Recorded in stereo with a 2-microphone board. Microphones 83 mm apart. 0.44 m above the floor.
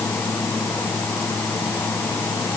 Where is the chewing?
No chewing in this recording.